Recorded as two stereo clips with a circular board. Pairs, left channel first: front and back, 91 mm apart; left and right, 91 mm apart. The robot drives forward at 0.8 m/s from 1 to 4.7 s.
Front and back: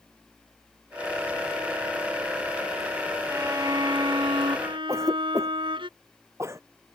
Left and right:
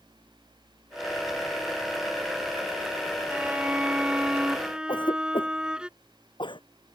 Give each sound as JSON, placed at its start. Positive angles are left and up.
{"t": 3.3, "sound": "a violin", "azimuth_deg": -155}
{"t": 4.9, "sound": "a cough", "azimuth_deg": 120}